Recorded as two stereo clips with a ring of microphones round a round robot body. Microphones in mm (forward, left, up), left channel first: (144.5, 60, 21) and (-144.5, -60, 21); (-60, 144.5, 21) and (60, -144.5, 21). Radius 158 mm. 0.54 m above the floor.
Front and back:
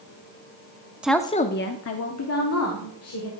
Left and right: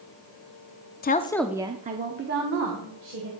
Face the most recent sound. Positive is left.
turn(degrees=-20)